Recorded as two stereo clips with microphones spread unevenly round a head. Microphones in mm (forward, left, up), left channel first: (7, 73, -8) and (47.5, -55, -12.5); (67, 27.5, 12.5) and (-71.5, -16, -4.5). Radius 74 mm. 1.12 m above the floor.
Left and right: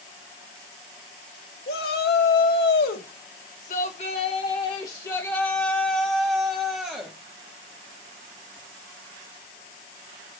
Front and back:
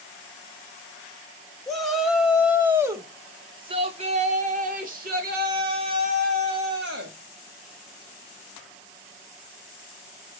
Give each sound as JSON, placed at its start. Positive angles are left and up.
{"t": 1.7, "sound": "a shout", "azimuth_deg": 105, "distance_m": 1.9}